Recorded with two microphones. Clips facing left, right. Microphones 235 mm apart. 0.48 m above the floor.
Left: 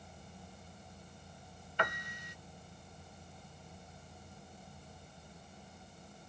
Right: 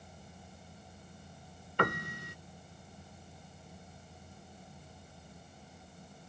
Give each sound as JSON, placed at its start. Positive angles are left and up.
{"t": 1.8, "sound": "a piano", "side_deg": -65}